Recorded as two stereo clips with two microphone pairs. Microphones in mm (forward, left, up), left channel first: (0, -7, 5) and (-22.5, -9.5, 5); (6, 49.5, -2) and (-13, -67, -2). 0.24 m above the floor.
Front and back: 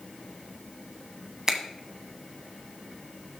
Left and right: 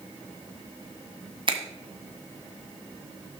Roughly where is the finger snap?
Behind right.